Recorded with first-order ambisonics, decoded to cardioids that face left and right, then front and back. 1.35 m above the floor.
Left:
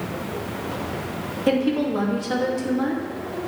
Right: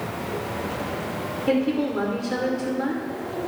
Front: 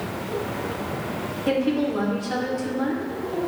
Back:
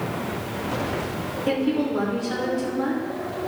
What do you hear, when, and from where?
1.5 s a woman speaking: 85° left, 2 m